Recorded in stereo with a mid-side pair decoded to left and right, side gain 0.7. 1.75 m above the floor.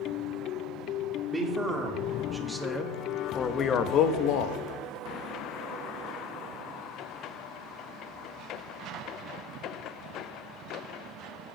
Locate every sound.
1.3 s a man speaking: 15° right, 1.8 m; by 4.6 s 75° left, 0.9 m